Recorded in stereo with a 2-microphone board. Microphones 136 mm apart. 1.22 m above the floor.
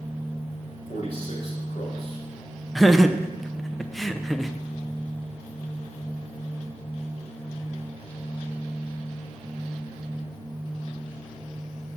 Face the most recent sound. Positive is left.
turn(degrees=0)  # may be behind; listen again after turning